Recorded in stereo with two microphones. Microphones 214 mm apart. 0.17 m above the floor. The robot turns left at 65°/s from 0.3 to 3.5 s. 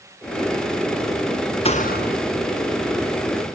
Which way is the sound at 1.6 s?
150° left.